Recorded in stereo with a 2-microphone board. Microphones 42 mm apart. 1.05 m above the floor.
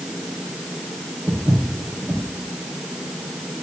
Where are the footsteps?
20° right (ahead or behind), 3 m.